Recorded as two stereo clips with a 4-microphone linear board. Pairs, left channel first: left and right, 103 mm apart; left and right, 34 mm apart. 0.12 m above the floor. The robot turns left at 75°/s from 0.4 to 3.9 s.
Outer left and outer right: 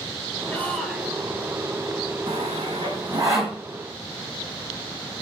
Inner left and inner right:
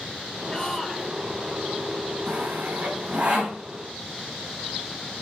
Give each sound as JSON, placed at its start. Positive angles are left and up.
{"t": 0.5, "sound": "a shout", "azimuth_deg": 25, "distance_m": 2.5}
{"t": 2.3, "sound": "sawing", "side_deg": -70, "distance_m": 4.5}